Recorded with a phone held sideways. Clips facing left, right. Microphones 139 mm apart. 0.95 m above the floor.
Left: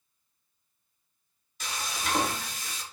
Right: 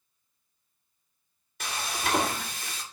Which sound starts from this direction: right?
Frying, at 1.6 s.